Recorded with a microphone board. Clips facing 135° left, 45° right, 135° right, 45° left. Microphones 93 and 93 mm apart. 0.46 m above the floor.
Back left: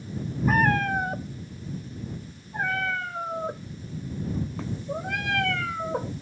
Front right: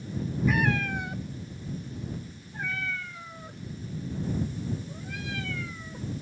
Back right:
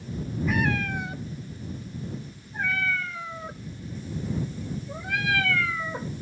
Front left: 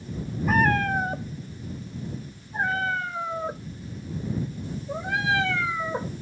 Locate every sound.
0.5 s a cat meowing: 90° left; by 6.1 s 115° left